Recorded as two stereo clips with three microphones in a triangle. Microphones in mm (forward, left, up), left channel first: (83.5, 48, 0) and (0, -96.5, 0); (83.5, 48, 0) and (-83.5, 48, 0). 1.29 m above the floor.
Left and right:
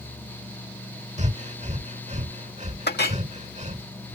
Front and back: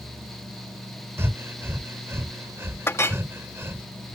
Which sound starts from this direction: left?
A clink, at 2.9 s.